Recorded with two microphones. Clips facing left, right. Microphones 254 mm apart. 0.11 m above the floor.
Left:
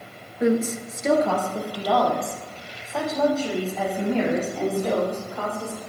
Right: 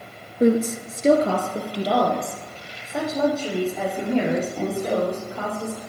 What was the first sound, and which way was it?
A woman speaking, 40° right (ahead or behind).